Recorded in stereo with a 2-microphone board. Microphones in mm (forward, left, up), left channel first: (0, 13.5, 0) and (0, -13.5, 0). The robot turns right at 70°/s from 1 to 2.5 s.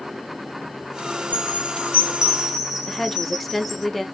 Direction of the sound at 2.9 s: Centre (ahead or behind).